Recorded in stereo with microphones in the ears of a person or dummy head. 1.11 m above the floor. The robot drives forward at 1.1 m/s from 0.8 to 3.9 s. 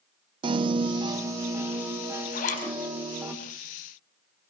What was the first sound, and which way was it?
A piano, 25° right (ahead or behind).